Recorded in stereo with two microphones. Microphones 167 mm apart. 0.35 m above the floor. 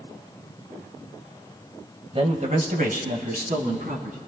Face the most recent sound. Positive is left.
turn(degrees=-55)  # may be behind; listen again after turning